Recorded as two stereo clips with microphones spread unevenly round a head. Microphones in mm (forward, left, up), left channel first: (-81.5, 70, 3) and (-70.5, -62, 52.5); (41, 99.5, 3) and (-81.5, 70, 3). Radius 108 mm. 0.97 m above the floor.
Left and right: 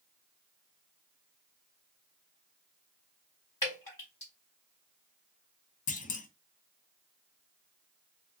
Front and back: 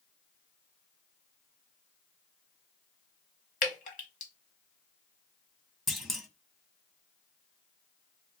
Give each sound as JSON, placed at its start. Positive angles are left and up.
{"t": 3.6, "sound": "dripping", "azimuth_deg": 10, "distance_m": 1.0}
{"t": 5.9, "sound": "a clunk", "azimuth_deg": 105, "distance_m": 0.7}